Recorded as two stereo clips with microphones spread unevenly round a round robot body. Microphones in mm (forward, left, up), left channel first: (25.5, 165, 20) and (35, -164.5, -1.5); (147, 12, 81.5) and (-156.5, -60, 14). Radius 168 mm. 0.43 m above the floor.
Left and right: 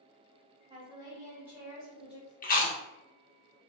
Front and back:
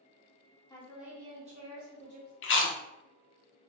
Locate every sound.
0.7 s a woman speaking: 85° right, 1.0 m; by 2.3 s straight behind, 1.5 m
2.4 s chewing: 50° left, 0.6 m